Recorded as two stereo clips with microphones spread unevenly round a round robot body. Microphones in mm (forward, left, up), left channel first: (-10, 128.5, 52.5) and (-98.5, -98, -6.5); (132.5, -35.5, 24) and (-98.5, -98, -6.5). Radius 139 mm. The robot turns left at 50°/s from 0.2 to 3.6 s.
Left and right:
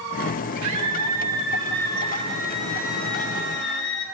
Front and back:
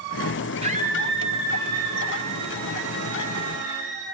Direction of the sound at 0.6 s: 100° right.